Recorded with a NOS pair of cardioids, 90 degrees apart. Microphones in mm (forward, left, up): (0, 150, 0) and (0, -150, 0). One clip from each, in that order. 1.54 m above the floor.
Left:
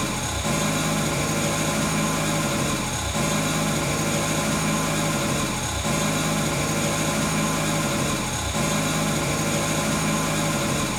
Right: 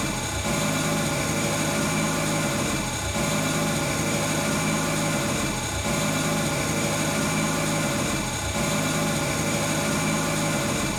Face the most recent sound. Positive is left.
turn(degrees=35)